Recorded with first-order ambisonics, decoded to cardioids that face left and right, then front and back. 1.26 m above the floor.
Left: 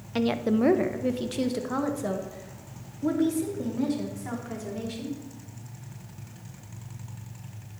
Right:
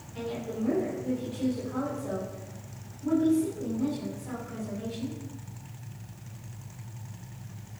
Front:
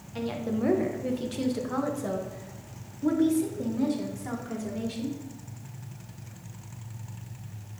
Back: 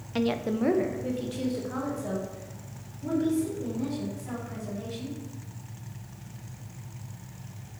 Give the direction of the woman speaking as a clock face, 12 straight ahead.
8 o'clock.